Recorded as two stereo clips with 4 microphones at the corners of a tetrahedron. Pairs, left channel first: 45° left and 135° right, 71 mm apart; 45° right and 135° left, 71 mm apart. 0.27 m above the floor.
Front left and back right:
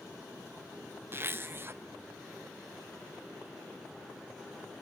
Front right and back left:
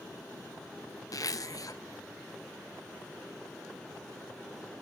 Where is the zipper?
75° right, 0.8 m.